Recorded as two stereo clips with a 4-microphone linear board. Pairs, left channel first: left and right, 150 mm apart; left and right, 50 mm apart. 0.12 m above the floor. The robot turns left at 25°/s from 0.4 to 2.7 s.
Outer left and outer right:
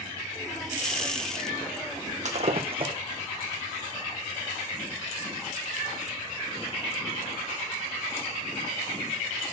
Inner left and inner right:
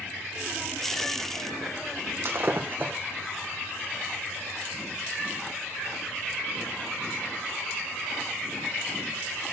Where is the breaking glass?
50° right (ahead or behind), 1.6 m; by 2.9 s 40° right (ahead or behind), 1.6 m.